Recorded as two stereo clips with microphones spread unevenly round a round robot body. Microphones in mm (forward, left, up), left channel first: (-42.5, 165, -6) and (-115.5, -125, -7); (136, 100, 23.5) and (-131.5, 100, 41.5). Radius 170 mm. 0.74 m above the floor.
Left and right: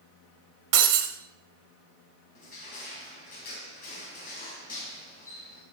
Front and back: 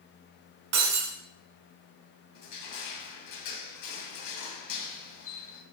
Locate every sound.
0.7 s breaking glass: 130° right, 1.8 m
2.4 s crushing: 5° left, 2.5 m